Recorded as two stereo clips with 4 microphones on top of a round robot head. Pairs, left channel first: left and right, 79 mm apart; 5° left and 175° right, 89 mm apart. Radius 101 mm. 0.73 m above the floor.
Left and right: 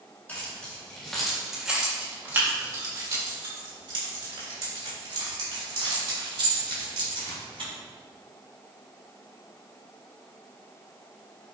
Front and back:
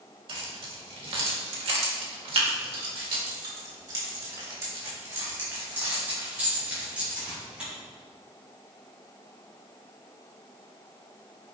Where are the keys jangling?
160° left, 2.5 m; by 7.7 s 95° right, 5.5 m.